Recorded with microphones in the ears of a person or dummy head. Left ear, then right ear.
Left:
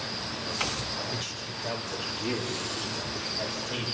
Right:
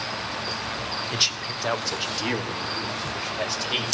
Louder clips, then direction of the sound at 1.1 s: Right 10 dB; 60° right (ahead or behind).